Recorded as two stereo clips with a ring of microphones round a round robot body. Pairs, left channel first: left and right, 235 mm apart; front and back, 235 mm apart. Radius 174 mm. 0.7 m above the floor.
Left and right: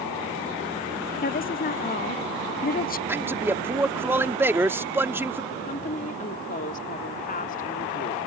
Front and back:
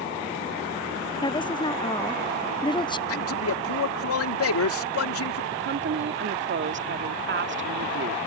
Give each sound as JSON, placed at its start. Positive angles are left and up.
{"t": 1.2, "sound": "a woman speaking", "azimuth_deg": 65}
{"t": 3.1, "sound": "a man speaking", "azimuth_deg": -10}
{"t": 5.5, "sound": "a woman speaking", "azimuth_deg": 150}